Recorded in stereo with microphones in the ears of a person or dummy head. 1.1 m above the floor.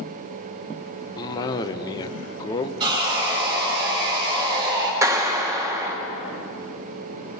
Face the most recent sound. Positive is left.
turn(degrees=-25)  # may be behind; listen again after turning